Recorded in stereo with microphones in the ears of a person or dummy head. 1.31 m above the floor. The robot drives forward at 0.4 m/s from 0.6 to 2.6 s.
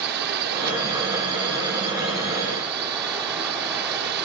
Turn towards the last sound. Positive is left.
turn(degrees=-60)  # may be behind; listen again after turning